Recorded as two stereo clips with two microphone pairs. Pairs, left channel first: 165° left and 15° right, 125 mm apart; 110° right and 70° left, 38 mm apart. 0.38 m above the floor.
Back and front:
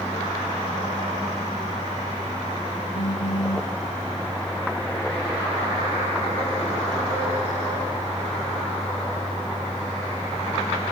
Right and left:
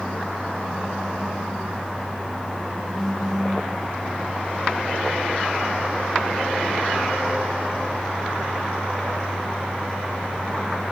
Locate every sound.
2.9 s a phone buzzing: 170° left, 1.9 m